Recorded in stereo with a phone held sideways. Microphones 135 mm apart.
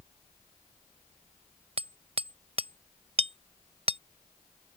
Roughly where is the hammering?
Right.